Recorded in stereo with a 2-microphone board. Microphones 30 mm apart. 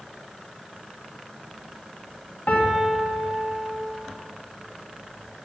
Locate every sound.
2.5 s a piano: 55° left (ahead or behind), 1.4 m